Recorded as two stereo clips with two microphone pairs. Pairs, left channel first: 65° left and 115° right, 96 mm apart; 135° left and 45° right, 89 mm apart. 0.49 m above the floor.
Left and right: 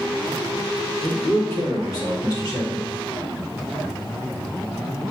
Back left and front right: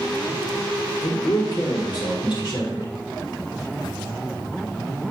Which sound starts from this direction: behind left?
A man speaking, at 1.0 s.